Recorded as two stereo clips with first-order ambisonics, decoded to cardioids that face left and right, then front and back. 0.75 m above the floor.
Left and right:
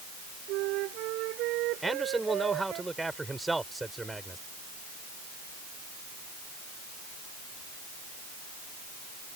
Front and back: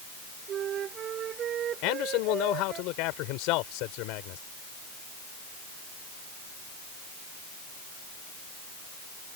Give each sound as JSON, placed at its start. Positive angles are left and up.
{"t": 0.5, "sound": "a flute", "azimuth_deg": -125}
{"t": 1.8, "sound": "a man speaking", "azimuth_deg": -10}